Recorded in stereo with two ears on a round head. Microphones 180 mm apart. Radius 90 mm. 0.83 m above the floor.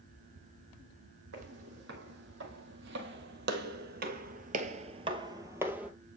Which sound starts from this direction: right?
Footsteps, at 1.3 s.